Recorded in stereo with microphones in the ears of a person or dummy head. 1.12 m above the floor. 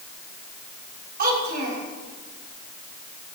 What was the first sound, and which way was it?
A child speaking, 50° right (ahead or behind).